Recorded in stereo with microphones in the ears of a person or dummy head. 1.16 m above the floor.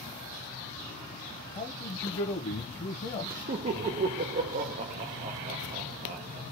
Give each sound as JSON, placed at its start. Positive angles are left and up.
{"t": 1.6, "sound": "a man speaking", "side_deg": 35, "distance_m": 0.7}
{"t": 3.5, "sound": "laughter", "side_deg": -35, "distance_m": 0.5}